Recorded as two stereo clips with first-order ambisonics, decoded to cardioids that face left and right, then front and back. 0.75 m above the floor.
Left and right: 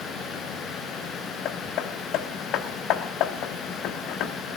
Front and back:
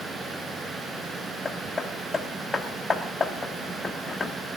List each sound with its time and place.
1.4 s hammering: 75° left, 0.9 m